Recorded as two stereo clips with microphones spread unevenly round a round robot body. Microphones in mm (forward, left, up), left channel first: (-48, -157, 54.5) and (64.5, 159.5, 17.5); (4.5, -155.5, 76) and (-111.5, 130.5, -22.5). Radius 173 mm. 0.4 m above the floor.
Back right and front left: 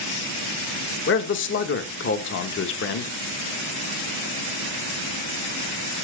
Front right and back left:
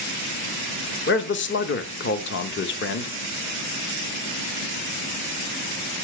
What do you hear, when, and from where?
1.1 s a man speaking: 120° right, 0.9 m